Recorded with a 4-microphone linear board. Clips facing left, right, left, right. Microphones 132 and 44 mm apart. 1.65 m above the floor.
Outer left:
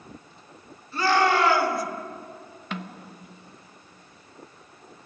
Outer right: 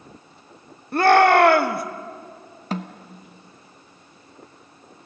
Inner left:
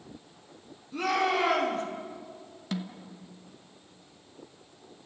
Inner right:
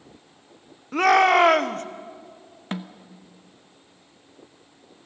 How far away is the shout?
About 1.4 m.